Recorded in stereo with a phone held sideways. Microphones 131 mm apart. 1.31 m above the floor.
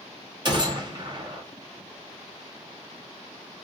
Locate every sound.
0.5 s a gunshot: 35° right (ahead or behind), 0.8 m